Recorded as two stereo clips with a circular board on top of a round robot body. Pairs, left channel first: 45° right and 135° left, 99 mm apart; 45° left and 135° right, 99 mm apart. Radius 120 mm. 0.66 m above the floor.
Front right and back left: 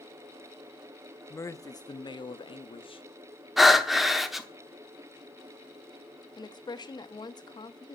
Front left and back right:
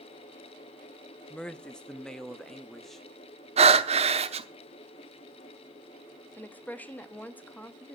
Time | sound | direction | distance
1.3 | a man speaking | 25° right | 0.8 m
3.6 | breathing | 135° right | 1.0 m
6.4 | a woman speaking | 25° right | 1.4 m